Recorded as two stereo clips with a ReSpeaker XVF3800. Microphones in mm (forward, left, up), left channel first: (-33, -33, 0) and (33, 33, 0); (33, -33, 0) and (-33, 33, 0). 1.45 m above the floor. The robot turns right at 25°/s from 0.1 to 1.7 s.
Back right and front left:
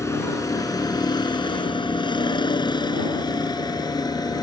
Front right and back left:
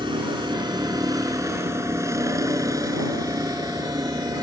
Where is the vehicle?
165° left; by 4.4 s straight behind.